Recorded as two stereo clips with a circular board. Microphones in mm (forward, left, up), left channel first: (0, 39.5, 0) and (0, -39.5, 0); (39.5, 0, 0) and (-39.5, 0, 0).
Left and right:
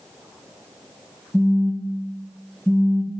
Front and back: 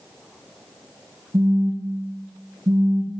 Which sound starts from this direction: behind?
A phone buzzing, at 1.3 s.